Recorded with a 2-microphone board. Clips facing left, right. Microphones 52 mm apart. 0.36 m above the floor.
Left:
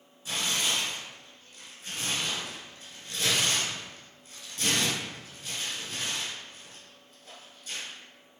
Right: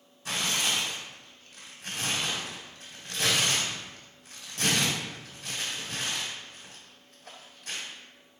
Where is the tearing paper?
70° right (ahead or behind), 1.1 m.